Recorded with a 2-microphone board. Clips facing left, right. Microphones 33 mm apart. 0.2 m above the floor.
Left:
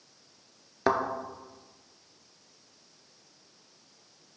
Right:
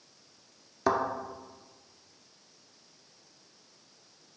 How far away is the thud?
About 0.8 m.